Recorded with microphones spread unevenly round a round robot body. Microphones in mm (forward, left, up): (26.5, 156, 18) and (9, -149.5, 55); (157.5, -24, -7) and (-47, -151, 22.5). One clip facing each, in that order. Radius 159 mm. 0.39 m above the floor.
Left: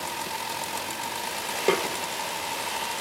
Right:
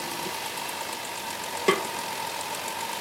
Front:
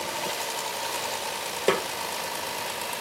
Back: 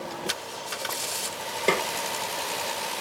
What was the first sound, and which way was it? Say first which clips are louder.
A snare drum: even, front 2 dB; 20° right.